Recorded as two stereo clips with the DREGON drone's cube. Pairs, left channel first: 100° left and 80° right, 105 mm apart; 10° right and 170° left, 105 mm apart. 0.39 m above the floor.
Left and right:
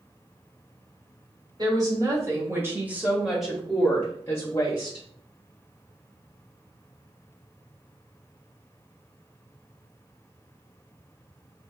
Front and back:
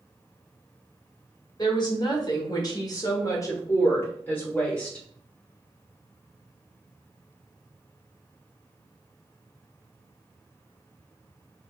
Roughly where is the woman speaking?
Ahead right.